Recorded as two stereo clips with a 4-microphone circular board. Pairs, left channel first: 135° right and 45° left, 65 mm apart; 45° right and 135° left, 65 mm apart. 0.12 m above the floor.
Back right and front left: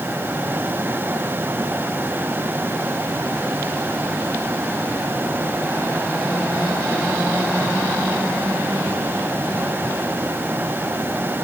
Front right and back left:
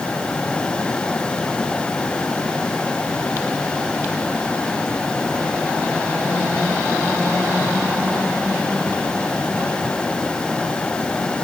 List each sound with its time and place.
Only background noise.